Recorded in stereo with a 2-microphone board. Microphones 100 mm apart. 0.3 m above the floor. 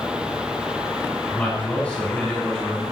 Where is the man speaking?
15° left (ahead or behind), 4.5 m; by 2.8 s 5° left (ahead or behind), 5.5 m.